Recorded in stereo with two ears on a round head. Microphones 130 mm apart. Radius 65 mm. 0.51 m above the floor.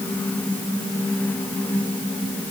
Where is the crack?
I don't hear a crack.